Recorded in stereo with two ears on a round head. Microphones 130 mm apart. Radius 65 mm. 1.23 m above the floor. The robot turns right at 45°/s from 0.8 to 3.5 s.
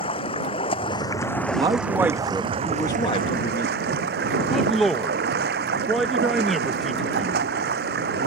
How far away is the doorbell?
I don't hear a doorbell.